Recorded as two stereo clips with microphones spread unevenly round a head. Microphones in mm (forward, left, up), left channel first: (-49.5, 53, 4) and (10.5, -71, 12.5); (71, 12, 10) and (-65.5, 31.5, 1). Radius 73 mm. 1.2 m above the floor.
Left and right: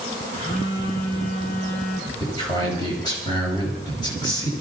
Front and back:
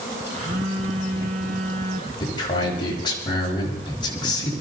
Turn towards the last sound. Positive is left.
turn(degrees=50)